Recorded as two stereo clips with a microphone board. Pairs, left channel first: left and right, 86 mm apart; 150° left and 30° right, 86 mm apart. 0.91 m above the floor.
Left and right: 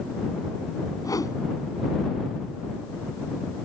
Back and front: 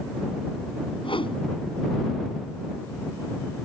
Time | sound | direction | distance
1.0 | a whoosh | 140° left | ?